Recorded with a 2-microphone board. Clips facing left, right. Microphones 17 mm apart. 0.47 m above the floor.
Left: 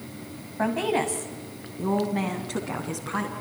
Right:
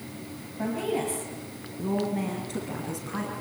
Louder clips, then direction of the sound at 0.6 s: Left 4 dB; 45° left (ahead or behind).